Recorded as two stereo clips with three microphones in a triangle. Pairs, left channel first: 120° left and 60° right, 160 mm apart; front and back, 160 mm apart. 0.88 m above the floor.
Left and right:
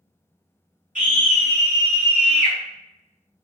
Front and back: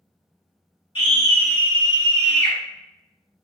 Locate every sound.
0.9 s a scream: 45° right, 1.6 m